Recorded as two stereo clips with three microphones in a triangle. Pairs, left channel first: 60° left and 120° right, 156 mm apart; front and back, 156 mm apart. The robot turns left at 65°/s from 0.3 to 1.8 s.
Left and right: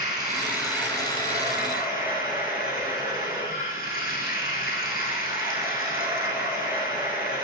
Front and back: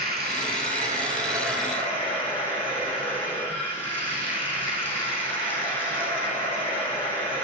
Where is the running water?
175° left, 6 m; by 7.4 s 80° left, 6 m.